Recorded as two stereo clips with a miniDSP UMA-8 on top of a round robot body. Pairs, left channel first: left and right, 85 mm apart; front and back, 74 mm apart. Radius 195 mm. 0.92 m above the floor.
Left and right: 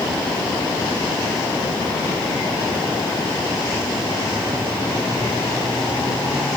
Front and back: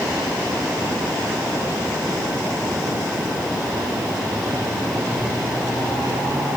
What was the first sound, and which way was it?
Only background noise.